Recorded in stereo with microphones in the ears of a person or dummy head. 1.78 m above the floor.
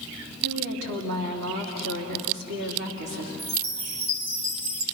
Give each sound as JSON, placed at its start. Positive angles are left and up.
{"t": 0.4, "sound": "a woman speaking", "side_deg": -75, "distance_m": 3.0}
{"t": 3.4, "sound": "a chime", "side_deg": -60, "distance_m": 3.0}